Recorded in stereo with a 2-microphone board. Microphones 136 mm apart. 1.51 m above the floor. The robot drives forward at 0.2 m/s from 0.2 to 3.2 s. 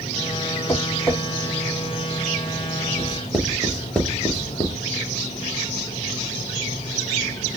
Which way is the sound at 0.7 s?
20° left (ahead or behind).